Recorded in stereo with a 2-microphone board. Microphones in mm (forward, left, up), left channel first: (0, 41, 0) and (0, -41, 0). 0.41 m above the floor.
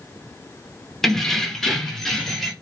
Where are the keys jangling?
5° left (ahead or behind), 0.5 m; by 2.5 s centre (ahead or behind), 0.8 m.